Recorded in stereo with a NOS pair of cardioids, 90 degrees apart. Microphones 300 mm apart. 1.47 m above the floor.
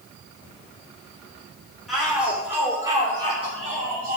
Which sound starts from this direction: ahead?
A shout, at 1.9 s.